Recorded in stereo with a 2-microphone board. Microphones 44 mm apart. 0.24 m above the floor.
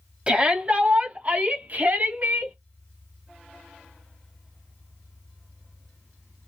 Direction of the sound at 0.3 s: 25° right (ahead or behind).